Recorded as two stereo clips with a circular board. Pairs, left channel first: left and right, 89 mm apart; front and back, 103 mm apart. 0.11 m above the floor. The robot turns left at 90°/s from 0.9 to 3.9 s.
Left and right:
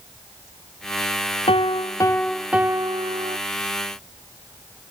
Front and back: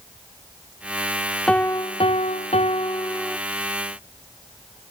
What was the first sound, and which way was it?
A piano, 85° left.